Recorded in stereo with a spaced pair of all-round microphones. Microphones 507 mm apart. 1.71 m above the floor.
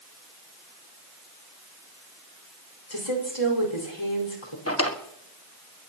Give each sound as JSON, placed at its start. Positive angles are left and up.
{"t": 2.9, "sound": "a woman speaking", "side_deg": 80, "distance_m": 5.0}
{"t": 4.7, "sound": "a drawer", "side_deg": 25, "distance_m": 1.6}